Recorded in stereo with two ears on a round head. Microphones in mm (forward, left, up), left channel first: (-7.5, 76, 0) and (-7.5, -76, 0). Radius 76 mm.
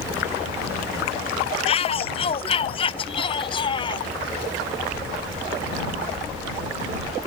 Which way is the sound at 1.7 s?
35° left (ahead or behind).